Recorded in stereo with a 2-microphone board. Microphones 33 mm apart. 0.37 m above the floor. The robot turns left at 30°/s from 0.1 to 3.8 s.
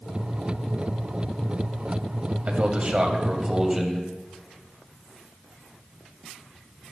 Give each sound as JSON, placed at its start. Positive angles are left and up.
{"t": 2.5, "sound": "a man speaking", "azimuth_deg": -125, "distance_m": 2.5}